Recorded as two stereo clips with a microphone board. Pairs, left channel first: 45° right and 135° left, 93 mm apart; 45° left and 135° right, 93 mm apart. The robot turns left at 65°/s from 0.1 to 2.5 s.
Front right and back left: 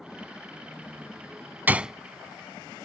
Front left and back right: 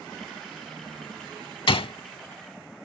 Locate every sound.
1.7 s a gunshot: 65° left; by 1.9 s 50° left